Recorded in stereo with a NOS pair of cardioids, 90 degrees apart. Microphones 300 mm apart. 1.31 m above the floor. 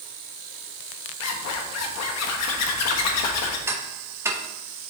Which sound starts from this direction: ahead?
Ticking, at 3.7 s.